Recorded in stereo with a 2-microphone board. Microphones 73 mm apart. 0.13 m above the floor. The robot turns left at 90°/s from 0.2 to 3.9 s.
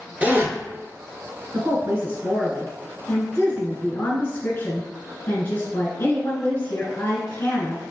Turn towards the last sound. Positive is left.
turn(degrees=65)